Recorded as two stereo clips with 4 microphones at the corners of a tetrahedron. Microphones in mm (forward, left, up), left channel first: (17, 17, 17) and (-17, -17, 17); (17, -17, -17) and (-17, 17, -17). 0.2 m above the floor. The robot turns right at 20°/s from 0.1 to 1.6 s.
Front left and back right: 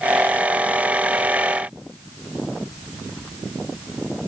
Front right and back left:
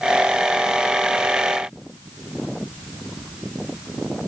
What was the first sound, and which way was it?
Only background noise.